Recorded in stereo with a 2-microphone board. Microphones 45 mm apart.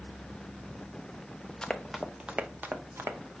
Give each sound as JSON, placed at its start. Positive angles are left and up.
{"t": 1.6, "sound": "running footsteps", "side_deg": 15, "distance_m": 0.7}